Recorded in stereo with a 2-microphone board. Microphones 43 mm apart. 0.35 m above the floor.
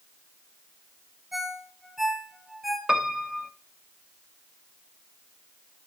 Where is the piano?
20° right (ahead or behind), 1.4 m.